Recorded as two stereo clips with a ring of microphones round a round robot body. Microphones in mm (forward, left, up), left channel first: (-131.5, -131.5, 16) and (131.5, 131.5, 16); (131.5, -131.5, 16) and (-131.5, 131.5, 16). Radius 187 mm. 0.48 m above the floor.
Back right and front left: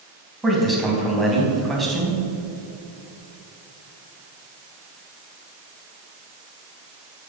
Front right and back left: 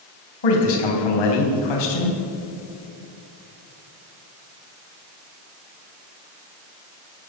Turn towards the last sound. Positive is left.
turn(degrees=-45)